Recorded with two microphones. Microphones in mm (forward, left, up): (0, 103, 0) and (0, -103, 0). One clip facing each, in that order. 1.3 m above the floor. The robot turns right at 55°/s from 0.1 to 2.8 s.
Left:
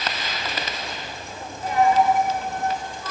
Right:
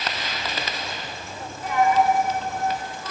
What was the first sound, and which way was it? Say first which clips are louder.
A dropped coin: left 1 dB; 125° left.